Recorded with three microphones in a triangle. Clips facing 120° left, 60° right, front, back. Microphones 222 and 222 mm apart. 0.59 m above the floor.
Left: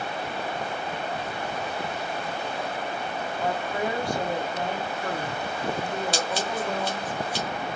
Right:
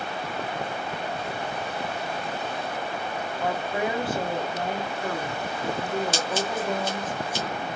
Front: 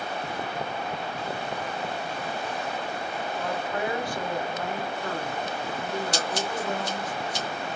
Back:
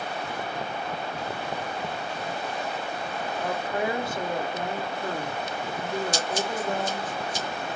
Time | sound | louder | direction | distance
3.4 | a woman speaking | right 1 dB, back 2 dB | 140° right | 0.6 m
6.1 | scissors | right 1 dB, back 1 dB | 15° right | 1.8 m